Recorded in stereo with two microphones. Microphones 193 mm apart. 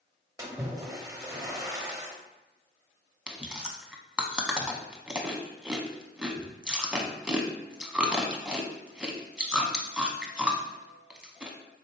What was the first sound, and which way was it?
A splash, 20° right (ahead or behind).